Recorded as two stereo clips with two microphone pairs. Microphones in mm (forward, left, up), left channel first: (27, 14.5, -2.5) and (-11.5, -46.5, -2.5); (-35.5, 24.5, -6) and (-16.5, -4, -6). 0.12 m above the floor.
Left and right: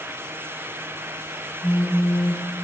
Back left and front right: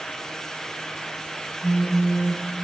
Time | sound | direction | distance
1.6 | a phone buzzing | 75° left | 3 m